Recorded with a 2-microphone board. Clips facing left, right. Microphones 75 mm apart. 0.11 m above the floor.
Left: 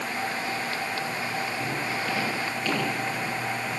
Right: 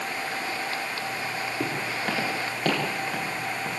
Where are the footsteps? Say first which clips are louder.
Even; 60° right (ahead or behind), 9.5 m.